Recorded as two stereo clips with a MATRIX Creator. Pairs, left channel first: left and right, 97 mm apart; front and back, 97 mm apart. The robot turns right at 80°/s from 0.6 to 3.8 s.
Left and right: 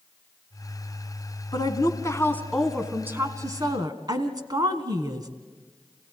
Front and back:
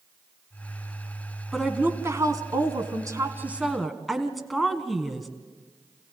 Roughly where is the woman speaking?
Left.